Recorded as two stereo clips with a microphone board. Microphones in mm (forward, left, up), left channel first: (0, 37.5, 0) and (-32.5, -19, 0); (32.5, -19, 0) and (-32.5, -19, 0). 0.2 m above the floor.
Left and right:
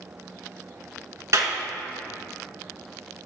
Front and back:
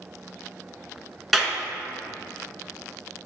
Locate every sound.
1.3 s a clap: 95° right, 1.5 m